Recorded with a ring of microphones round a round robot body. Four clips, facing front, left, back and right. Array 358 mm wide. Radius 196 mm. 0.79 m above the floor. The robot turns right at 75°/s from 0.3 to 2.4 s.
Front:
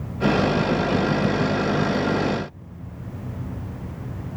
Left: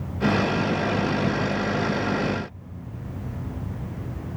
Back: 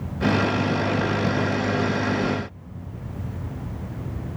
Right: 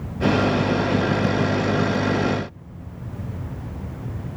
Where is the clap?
No clap in this recording.